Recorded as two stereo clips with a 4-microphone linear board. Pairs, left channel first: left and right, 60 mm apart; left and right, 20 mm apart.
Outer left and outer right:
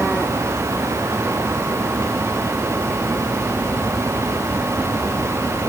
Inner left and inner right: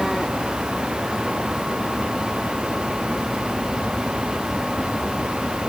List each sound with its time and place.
Only background noise.